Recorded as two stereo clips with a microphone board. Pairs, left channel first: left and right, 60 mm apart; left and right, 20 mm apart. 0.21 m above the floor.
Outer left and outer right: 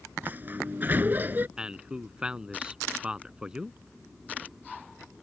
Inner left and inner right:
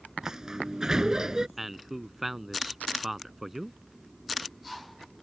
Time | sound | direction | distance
0.2 | a sliding door | 30° right (ahead or behind) | ?
1.6 | a man speaking | 15° right (ahead or behind) | ?